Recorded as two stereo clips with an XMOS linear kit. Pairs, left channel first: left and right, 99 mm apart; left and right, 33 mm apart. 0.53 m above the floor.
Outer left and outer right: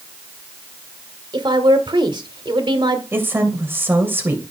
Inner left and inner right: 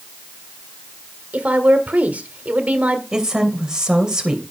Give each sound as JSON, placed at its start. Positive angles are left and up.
{"t": 1.3, "sound": "a woman speaking", "side_deg": -50, "distance_m": 1.5}
{"t": 3.1, "sound": "a woman speaking", "side_deg": -20, "distance_m": 3.0}